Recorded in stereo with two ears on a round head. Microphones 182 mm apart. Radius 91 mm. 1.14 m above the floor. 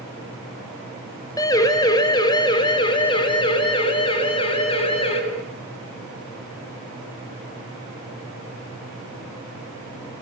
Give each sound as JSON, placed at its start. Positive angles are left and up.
{"t": 1.4, "sound": "a siren", "side_deg": 15, "distance_m": 4.5}